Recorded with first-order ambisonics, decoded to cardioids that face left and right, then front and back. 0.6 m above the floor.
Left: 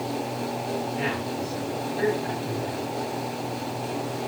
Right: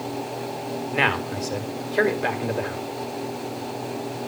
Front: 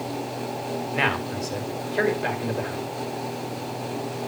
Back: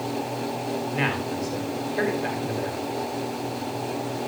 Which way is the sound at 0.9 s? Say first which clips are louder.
Right 6 dB, front 4 dB; 70° right.